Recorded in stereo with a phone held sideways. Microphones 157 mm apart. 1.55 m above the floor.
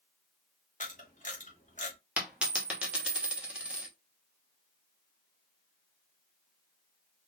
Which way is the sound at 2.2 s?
10° right (ahead or behind).